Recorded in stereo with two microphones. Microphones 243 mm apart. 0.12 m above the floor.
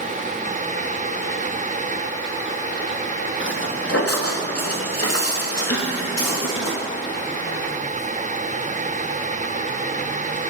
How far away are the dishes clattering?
About 2 m.